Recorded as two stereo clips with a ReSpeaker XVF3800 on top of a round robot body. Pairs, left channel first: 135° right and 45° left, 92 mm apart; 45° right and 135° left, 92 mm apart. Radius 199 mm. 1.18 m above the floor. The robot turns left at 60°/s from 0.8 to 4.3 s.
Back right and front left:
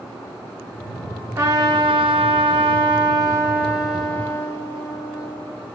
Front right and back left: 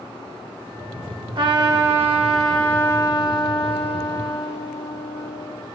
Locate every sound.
1.4 s a trumpet: 105° left, 1.5 m; by 5.6 s 70° right, 1.5 m